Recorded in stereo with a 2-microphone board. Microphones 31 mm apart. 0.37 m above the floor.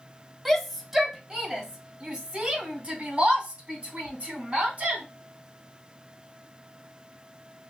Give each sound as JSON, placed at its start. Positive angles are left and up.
{"t": 0.5, "sound": "a shout", "side_deg": -5, "distance_m": 1.1}